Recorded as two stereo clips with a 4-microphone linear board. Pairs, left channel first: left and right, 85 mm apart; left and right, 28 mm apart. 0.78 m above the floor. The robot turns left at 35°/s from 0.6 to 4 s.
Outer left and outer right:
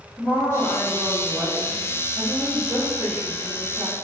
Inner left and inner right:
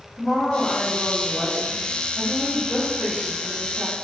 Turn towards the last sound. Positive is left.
turn(degrees=-95)